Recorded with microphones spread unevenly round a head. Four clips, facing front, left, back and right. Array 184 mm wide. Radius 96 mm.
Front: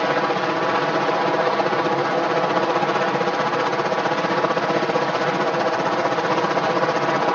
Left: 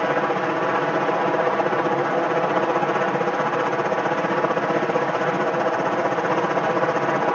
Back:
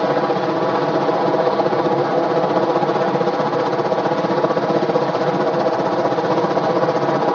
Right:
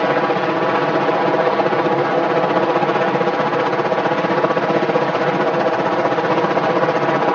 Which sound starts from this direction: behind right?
A helicopter, at 0.0 s.